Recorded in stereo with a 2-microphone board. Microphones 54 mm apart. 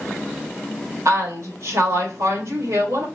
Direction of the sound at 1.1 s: 70° right (ahead or behind).